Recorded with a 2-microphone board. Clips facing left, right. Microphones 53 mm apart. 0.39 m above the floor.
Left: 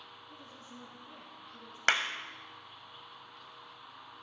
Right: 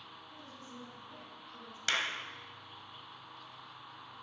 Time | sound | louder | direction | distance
0.3 | a woman speaking | right 1 dB | 30° left (ahead or behind) | 3.5 m
1.9 | a clap | left 5 dB | 50° left (ahead or behind) | 1.3 m